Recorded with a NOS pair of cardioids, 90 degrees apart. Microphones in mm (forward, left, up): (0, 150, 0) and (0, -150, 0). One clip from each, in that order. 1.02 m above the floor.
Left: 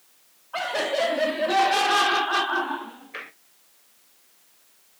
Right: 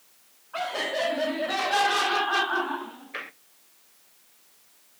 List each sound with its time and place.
0.5 s laughter: 25° left, 1.9 m; by 3.3 s 10° right, 0.6 m